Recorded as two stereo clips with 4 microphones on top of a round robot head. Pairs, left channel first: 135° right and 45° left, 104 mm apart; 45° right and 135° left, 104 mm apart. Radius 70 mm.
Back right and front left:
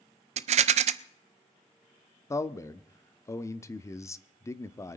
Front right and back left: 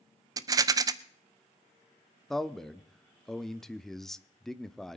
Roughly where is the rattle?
Left.